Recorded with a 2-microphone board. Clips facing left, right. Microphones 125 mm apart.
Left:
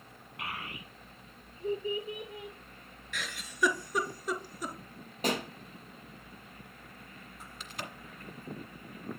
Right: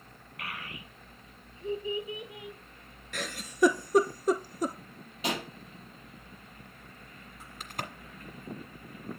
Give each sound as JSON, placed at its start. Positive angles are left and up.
{"t": 0.4, "sound": "a child speaking", "side_deg": 25, "distance_m": 0.9}
{"t": 3.1, "sound": "a giggle", "side_deg": -45, "distance_m": 0.6}
{"t": 5.2, "sound": "a pop", "side_deg": 45, "distance_m": 2.0}
{"t": 7.6, "sound": "a crack", "side_deg": -50, "distance_m": 1.4}